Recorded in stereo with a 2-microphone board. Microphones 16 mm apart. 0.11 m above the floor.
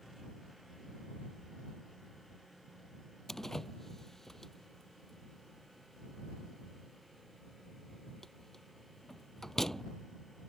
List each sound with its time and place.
3.3 s a door slam: 25° left (ahead or behind)